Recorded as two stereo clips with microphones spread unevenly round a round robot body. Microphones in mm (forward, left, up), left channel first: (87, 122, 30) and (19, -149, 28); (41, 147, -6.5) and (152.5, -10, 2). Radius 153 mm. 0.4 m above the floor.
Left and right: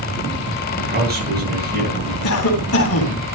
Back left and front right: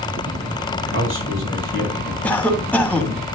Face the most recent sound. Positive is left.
turn(degrees=45)